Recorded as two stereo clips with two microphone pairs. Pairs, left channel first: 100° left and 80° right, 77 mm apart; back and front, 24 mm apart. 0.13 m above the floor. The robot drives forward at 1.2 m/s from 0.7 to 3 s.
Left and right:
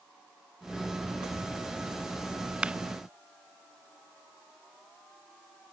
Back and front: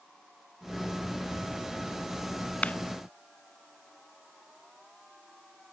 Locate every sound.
2.6 s a clap: 155° right